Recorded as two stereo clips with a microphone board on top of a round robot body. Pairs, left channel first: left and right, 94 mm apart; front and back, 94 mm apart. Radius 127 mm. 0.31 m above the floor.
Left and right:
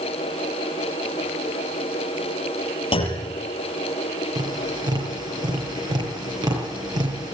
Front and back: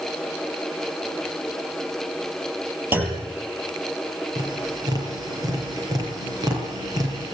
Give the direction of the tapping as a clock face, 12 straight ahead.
4 o'clock.